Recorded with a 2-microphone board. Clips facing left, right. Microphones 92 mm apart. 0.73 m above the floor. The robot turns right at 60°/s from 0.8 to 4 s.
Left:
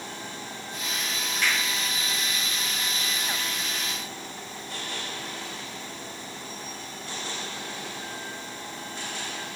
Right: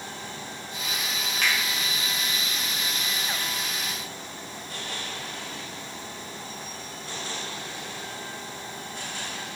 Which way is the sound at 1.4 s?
65° right (ahead or behind).